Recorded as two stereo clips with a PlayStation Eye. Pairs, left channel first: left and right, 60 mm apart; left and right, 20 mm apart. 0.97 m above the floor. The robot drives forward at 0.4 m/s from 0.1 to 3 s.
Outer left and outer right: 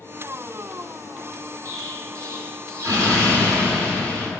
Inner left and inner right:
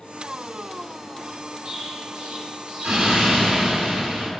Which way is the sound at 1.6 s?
65° right (ahead or behind).